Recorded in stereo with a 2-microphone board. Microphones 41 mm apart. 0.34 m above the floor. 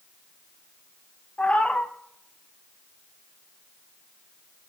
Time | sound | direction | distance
1.4 | a cat meowing | 30° left (ahead or behind) | 1.1 m